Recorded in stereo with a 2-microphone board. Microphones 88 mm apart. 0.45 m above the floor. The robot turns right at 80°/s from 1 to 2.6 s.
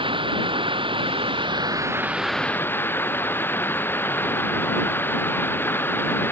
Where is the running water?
105° right; by 6.3 s 25° left.